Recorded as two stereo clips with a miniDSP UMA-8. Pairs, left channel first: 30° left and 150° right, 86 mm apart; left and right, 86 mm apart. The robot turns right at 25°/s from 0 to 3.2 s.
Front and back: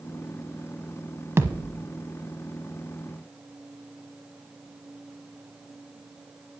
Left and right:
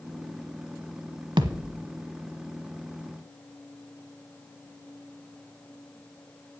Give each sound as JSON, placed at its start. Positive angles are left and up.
{"t": 1.4, "sound": "a thud", "azimuth_deg": -90, "distance_m": 0.8}